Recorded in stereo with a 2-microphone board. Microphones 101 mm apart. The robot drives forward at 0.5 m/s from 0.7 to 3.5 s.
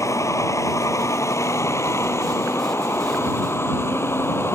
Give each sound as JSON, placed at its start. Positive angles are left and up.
{"t": 0.0, "sound": "a vehicle", "side_deg": 30}